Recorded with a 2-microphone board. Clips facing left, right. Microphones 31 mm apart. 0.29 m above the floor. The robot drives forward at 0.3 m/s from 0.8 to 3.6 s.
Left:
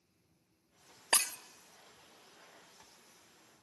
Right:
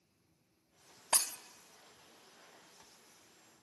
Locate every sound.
1.1 s breaking glass: 65° left (ahead or behind), 0.7 m; by 1.4 s 60° left (ahead or behind), 0.7 m